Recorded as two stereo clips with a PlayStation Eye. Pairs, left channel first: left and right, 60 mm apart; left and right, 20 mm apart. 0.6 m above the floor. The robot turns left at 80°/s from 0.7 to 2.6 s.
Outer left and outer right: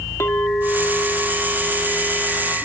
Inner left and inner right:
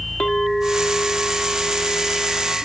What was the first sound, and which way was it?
A clink, 100° left.